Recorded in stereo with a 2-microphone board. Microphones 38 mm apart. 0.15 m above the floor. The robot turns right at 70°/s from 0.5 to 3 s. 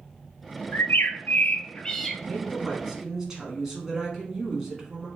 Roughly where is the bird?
Left.